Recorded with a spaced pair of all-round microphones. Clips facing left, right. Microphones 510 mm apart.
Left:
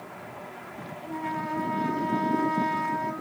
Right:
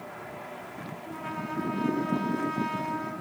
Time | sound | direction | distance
1.0 | a trumpet | 80° left | 4.5 m